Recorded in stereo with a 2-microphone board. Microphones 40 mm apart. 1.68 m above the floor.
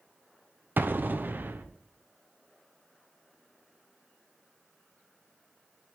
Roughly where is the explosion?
Right.